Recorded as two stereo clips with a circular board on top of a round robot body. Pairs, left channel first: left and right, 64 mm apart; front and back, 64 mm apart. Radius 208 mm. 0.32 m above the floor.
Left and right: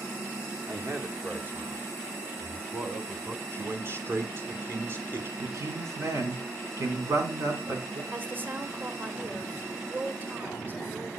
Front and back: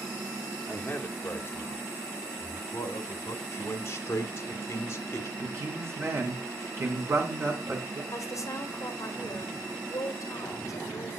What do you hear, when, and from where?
0.7 s a man speaking: 60° right, 1.9 m; by 3.4 s 20° right, 3 m
3.5 s a man speaking: 45° right, 2.5 m
5.4 s a man speaking: 130° right, 4 m
8.1 s a woman speaking: 35° right, 2 m